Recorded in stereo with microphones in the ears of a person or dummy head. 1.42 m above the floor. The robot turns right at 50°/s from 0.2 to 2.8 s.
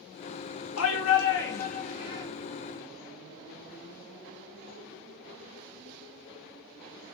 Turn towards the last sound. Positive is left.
turn(degrees=-165)